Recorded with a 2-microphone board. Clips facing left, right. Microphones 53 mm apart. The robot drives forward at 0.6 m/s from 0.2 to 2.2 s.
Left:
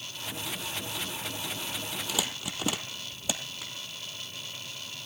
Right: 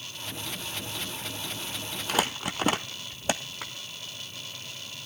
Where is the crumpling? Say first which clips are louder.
Right 8 dB; 55° right (ahead or behind), 0.7 m; by 3.7 s 50° right (ahead or behind), 0.7 m.